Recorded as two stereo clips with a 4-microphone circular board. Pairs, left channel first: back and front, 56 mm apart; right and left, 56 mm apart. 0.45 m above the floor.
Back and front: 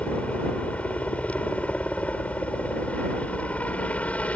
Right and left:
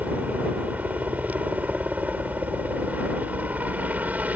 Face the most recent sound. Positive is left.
turn(degrees=130)